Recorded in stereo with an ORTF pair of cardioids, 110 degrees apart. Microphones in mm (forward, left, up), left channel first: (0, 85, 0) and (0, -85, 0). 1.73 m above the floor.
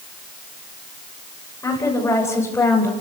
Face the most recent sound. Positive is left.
turn(degrees=10)